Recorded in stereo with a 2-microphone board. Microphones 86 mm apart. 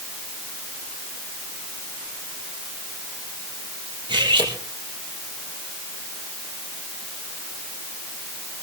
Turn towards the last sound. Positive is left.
turn(degrees=-65)  # may be behind; listen again after turning